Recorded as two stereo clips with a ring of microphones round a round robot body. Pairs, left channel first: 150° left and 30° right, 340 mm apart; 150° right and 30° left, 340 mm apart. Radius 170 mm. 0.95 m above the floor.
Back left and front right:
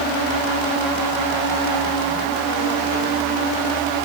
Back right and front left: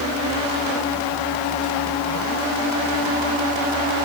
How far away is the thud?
I don't hear a thud.